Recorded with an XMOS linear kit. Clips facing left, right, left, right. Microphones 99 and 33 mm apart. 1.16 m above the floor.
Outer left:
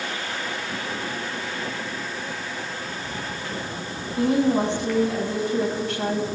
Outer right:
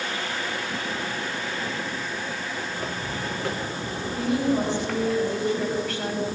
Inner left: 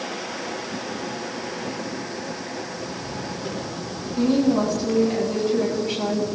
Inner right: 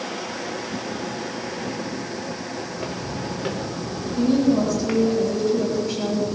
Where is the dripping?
No dripping in this recording.